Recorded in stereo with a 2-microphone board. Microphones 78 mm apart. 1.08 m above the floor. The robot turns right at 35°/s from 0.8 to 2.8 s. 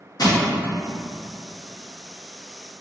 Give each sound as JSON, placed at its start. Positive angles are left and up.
{"t": 0.2, "sound": "crushing", "side_deg": 60, "distance_m": 0.9}